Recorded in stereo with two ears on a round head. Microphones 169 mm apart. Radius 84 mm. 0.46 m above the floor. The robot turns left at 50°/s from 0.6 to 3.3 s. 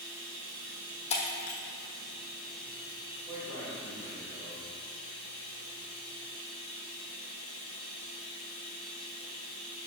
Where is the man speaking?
20° right (ahead or behind), 1.8 m.